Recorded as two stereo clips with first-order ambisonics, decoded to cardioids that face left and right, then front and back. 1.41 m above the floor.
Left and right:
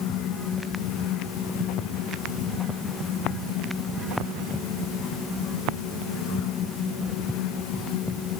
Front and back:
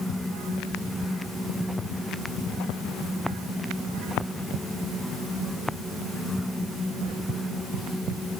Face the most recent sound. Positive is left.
No sound to turn to.